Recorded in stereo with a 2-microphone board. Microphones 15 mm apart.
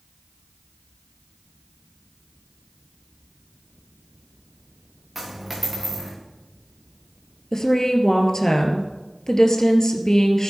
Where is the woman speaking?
40° left (ahead or behind), 2 m.